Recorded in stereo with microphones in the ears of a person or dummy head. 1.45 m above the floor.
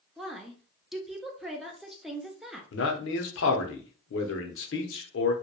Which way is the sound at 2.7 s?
70° left (ahead or behind).